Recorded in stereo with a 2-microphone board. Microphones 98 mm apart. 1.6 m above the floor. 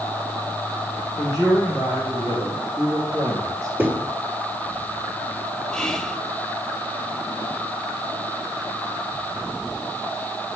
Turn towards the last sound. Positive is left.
turn(degrees=10)  # may be behind; listen again after turning